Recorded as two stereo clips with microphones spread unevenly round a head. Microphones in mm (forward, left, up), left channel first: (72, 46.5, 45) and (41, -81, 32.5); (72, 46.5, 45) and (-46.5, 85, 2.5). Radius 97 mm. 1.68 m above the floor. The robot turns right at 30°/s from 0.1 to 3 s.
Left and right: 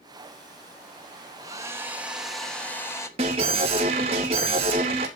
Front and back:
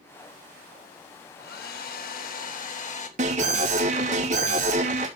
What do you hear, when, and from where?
1.4 s a hair dryer: 45° right, 3 m; by 3.1 s 5° left, 3 m
3.2 s an alarm: 160° right, 4 m